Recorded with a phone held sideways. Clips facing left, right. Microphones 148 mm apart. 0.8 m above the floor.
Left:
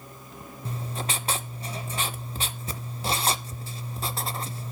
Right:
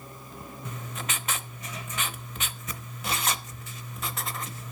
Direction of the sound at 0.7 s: 35° left (ahead or behind).